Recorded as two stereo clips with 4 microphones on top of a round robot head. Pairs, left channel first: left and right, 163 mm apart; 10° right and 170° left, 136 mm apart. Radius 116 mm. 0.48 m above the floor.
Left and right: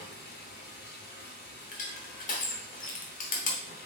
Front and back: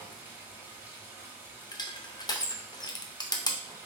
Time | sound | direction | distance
0.0 | running water | 95° left | 1.3 m
1.7 | crushing | 50° left | 0.7 m